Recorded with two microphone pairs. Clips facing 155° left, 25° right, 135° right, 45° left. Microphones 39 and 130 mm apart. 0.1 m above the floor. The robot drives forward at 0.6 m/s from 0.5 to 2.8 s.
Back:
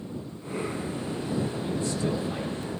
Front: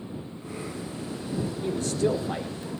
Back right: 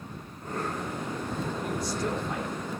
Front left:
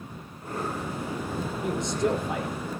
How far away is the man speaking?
About 6.5 m.